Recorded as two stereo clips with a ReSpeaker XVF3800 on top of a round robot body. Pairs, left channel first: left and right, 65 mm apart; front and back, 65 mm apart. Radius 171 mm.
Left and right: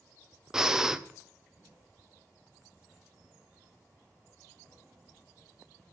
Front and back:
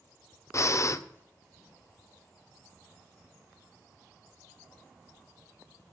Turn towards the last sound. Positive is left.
turn(degrees=-10)